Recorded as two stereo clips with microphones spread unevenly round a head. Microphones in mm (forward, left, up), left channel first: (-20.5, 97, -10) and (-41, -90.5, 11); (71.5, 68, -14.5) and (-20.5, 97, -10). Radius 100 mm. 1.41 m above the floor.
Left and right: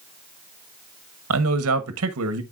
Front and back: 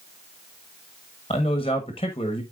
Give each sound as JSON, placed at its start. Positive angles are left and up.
{"t": 1.3, "sound": "a man speaking", "azimuth_deg": -80, "distance_m": 1.2}